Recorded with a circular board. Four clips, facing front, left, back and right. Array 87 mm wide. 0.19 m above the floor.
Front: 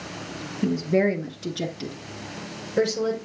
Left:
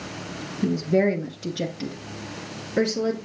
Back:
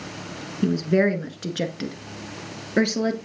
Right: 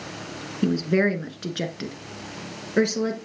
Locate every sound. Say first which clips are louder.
0.6 s a woman speaking: even, back 1 dB; 125° right, 1.8 m; by 3.1 s 160° right, 2.5 m